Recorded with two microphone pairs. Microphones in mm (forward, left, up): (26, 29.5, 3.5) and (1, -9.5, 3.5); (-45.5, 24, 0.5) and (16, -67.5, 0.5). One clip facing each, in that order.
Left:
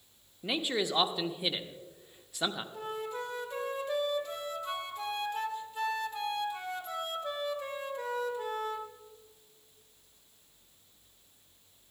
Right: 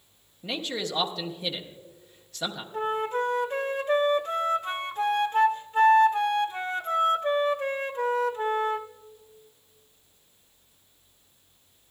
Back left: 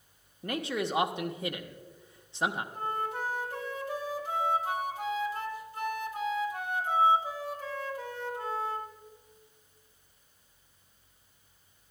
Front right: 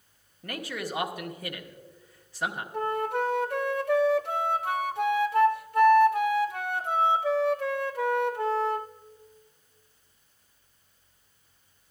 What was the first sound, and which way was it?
A man speaking, 110° left.